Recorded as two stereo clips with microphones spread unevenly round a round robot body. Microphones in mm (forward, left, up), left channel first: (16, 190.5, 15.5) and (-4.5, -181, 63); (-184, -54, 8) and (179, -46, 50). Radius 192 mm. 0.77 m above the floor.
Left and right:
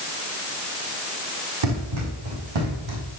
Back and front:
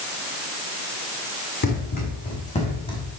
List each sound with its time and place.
1.6 s running footsteps: 115° right, 3 m; by 3.0 s 100° right, 2.5 m